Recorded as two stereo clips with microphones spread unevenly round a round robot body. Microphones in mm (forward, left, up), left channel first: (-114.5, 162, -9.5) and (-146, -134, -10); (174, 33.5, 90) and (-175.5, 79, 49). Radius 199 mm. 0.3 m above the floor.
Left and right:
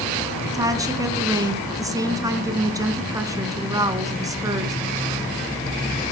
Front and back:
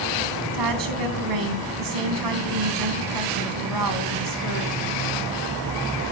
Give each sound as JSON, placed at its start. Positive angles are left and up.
{"t": 0.5, "sound": "a woman speaking", "azimuth_deg": -175, "distance_m": 3.5}